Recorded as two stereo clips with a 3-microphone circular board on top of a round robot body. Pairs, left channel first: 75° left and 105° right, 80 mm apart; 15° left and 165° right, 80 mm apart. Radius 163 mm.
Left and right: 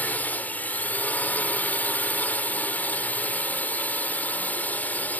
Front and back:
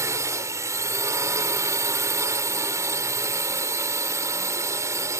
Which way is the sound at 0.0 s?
145° left.